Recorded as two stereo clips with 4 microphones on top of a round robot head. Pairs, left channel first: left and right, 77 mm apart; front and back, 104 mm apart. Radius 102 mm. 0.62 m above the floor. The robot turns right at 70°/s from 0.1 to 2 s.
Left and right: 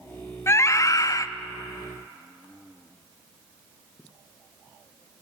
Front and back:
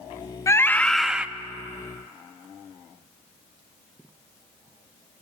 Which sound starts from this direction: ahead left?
A scream, at 0.5 s.